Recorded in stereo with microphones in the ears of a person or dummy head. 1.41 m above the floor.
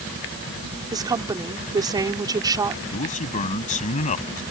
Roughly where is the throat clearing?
No throat clearing in this recording.